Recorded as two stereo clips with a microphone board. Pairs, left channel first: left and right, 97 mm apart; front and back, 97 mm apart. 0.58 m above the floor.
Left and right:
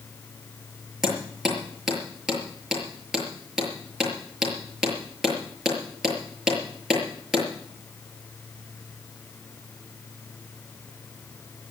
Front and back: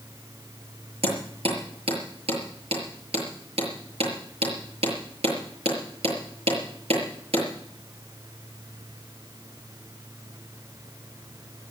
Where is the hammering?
175° right, 6.5 m.